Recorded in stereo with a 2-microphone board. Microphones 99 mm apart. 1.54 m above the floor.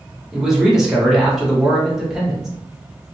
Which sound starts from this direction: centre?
A man speaking, at 0.3 s.